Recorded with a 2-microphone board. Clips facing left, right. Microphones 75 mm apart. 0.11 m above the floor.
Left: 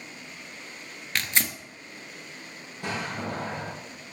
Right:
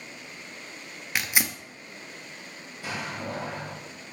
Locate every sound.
1.1 s tearing paper: 10° right (ahead or behind), 0.7 m
2.8 s a door slam: 55° left (ahead or behind), 3 m